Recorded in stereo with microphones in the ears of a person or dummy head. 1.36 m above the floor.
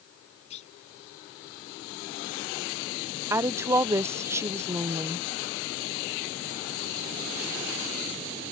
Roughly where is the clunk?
Left.